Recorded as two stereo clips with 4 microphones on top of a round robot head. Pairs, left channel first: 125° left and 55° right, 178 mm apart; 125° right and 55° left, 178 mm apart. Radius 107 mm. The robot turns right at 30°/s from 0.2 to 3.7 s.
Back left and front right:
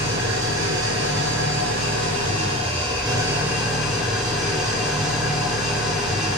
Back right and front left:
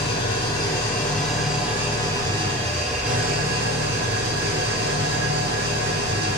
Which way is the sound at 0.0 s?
75° right.